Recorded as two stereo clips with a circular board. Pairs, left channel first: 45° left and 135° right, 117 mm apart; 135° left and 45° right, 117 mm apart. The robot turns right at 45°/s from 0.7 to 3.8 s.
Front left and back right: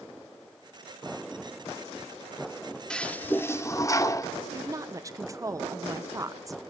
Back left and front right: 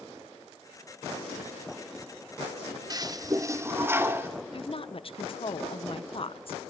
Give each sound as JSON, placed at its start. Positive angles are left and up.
{"t": 2.9, "sound": "a toilet flushing", "azimuth_deg": -30, "distance_m": 0.9}
{"t": 4.5, "sound": "a woman speaking", "azimuth_deg": 165, "distance_m": 0.9}